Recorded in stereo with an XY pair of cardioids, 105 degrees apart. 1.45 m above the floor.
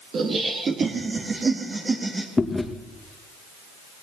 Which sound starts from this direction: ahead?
Chewing, at 2.4 s.